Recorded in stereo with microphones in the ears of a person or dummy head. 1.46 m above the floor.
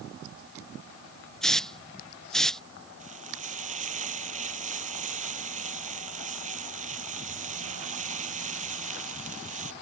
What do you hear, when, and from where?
1.4 s a hiss: 10° left (ahead or behind)
3.0 s frying: 45° right (ahead or behind)